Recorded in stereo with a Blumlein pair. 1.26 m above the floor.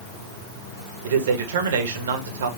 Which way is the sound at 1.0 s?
60° right.